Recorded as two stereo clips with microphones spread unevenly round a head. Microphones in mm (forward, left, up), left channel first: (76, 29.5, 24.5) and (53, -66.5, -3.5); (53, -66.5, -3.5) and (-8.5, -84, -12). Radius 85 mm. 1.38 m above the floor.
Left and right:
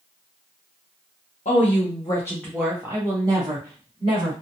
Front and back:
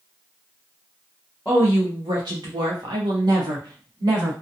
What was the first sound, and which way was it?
A woman speaking, 110° left.